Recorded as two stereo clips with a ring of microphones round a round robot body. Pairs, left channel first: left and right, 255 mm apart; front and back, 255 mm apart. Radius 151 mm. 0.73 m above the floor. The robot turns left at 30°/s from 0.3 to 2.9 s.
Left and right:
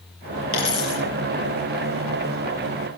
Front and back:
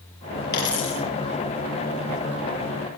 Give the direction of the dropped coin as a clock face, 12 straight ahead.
10 o'clock.